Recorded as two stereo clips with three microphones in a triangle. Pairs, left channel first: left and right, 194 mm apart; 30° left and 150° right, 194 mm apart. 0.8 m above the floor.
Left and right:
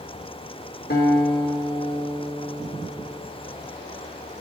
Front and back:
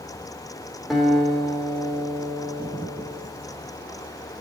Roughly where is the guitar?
Behind left.